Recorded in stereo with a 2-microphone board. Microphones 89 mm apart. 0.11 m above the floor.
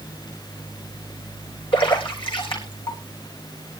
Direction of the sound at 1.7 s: 75° left (ahead or behind).